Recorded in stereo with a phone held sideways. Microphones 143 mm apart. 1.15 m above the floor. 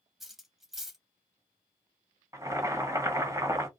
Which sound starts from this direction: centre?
Cutlery clinking, at 0.2 s.